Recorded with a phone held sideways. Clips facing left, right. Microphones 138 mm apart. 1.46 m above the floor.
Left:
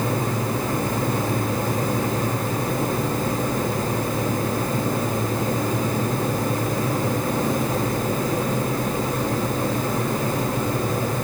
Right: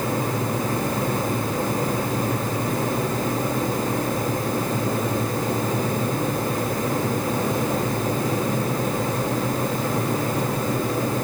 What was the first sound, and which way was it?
Only background noise.